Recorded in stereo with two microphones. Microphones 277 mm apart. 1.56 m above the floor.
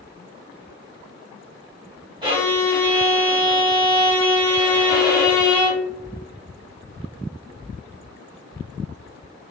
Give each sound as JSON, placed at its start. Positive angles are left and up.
{"t": 2.2, "sound": "a violin", "side_deg": -15, "distance_m": 1.2}